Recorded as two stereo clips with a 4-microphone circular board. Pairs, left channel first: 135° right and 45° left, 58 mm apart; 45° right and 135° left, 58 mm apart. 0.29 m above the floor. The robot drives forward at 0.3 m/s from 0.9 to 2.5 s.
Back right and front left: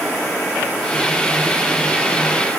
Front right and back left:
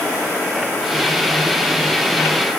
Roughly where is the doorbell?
No doorbell in this recording.